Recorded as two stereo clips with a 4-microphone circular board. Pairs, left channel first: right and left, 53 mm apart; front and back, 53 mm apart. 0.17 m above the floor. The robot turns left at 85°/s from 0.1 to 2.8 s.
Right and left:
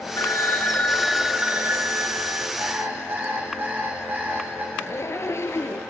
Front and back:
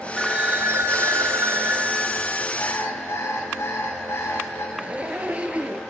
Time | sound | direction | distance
0.2 | a phone ringing | 100° right | 2 m
2.6 | an alarm clock | 55° left | 6.5 m
4.8 | a zipper | 115° right | 1.0 m